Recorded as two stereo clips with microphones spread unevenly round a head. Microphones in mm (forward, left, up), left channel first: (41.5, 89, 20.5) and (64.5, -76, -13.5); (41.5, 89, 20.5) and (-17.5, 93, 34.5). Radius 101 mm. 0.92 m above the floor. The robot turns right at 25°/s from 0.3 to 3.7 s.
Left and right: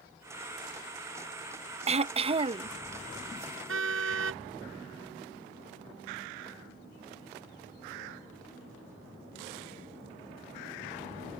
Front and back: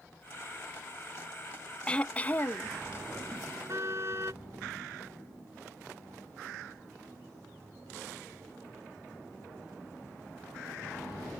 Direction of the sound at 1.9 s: 65° right.